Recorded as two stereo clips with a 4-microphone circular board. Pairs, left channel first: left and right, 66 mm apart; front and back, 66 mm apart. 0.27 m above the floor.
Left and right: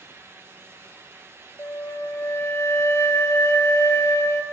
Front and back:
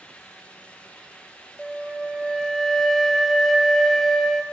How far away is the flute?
About 0.7 m.